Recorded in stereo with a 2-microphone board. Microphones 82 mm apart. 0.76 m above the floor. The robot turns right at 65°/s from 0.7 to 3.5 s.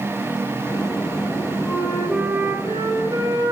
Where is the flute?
155° left, 3 m; by 3.5 s 85° right, 3 m.